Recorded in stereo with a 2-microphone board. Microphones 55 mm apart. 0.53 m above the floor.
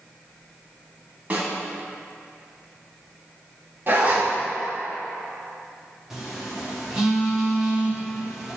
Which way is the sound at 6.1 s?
10° right (ahead or behind).